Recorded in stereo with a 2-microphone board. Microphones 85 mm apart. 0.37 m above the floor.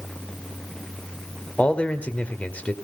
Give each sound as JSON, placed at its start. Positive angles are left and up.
{"t": 1.6, "sound": "a man speaking", "side_deg": 15, "distance_m": 1.4}